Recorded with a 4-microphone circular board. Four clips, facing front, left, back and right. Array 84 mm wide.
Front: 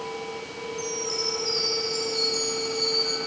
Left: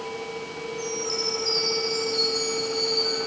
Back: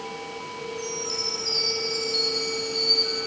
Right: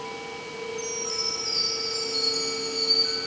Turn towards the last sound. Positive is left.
turn(degrees=25)